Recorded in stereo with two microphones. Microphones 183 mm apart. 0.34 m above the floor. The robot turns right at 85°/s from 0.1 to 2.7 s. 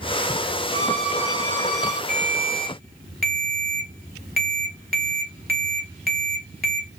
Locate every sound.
0.7 s a violin: 155° left, 0.9 m; by 2.0 s 95° right, 0.9 m
2.1 s a ringtone: 125° right, 1.0 m; by 6.9 s 70° right, 1.0 m